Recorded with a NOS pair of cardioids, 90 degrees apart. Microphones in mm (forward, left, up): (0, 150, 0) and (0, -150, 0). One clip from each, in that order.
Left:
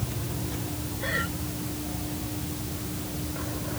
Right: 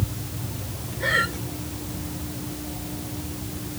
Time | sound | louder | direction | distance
1.0 | breathing | right 8 dB | 50° right | ?